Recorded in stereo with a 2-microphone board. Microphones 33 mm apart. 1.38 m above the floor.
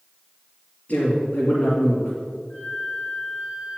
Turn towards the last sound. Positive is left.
turn(degrees=30)  # may be behind; listen again after turning